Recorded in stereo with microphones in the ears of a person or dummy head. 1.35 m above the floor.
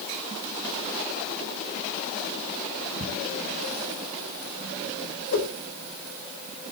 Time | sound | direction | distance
3.0 | ticking | 50° right (ahead or behind) | 2.5 m
5.3 | a whoosh | 65° left (ahead or behind) | 6.5 m